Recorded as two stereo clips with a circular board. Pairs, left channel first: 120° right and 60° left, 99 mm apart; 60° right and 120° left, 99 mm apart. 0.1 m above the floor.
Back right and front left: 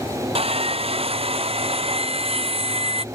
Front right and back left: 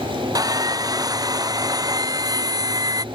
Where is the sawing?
70° left.